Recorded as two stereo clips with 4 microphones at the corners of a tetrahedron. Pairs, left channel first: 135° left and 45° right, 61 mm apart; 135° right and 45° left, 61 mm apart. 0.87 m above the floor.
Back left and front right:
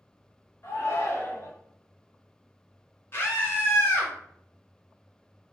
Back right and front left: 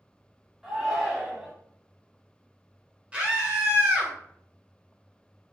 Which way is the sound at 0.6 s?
130° left.